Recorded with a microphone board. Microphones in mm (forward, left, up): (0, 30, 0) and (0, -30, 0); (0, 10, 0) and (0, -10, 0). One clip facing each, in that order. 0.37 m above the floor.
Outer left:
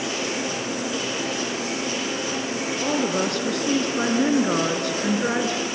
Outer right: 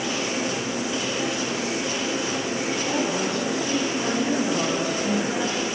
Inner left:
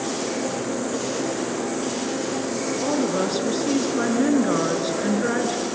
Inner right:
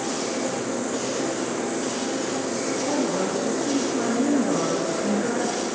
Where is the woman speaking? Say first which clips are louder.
Outer left 4 dB, inner left 3 dB; 75° left (ahead or behind), 4.5 m.